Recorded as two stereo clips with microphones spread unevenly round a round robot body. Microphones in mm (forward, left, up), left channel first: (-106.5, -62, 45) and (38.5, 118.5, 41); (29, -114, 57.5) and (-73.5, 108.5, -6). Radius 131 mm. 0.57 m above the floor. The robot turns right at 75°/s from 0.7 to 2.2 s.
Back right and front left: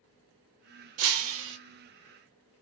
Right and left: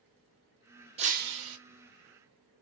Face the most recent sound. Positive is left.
turn(degrees=130)